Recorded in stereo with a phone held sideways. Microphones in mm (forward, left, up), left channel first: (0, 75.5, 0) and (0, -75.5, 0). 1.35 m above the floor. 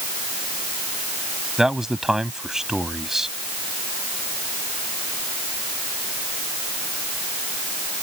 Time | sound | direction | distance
1.6 | a man speaking | 5° right (ahead or behind) | ?